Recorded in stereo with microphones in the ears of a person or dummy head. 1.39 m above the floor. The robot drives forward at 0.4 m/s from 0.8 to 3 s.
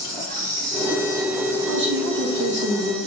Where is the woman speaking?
65° right (ahead or behind), 1.6 m; by 3.0 s 50° right (ahead or behind), 1.9 m.